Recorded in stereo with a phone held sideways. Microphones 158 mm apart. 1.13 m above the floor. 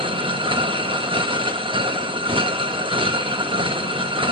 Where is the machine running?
35° right (ahead or behind), 0.8 m.